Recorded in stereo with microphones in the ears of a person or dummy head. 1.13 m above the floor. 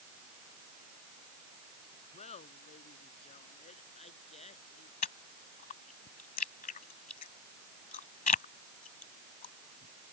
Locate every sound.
2.1 s laughter: 35° left (ahead or behind)
5.0 s chewing: 40° left (ahead or behind)